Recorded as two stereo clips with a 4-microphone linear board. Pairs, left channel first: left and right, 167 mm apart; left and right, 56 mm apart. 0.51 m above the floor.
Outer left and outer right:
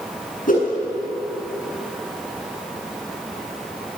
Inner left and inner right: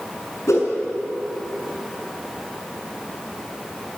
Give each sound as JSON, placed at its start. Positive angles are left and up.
{"t": 0.5, "sound": "a whoosh", "side_deg": 60, "distance_m": 7.0}